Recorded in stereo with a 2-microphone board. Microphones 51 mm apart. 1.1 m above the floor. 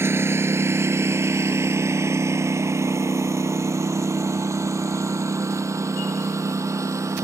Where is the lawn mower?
55° right (ahead or behind); by 7.2 s 80° right.